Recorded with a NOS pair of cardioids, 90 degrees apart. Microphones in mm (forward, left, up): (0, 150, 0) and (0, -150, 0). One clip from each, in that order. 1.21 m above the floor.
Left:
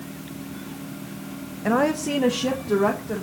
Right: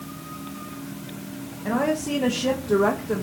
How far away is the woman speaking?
About 0.9 m.